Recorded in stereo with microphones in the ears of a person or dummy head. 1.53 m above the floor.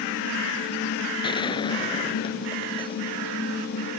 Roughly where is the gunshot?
Left.